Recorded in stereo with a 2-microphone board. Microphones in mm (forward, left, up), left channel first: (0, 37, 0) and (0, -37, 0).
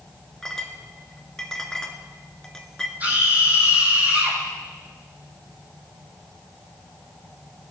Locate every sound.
0.4 s a clink: 10° left (ahead or behind), 1.3 m
3.0 s a scream: 20° right (ahead or behind), 6 m